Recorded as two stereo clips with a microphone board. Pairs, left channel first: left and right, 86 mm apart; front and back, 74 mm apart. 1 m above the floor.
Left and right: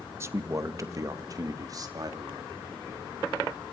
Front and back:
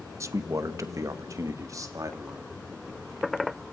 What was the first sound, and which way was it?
A man speaking, 140° right.